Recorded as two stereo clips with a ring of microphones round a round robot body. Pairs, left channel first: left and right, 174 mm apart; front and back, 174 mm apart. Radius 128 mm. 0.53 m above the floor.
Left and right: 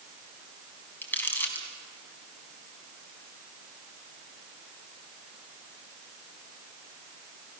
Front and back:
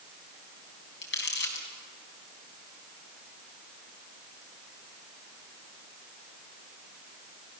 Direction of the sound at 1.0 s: 10° left.